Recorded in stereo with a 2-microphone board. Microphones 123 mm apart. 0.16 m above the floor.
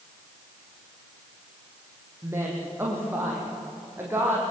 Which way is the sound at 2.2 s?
20° right (ahead or behind).